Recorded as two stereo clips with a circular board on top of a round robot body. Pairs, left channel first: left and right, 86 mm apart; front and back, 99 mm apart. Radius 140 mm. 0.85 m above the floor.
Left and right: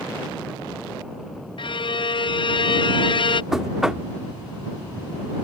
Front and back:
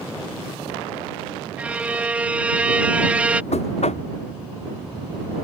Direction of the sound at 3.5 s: 5° right.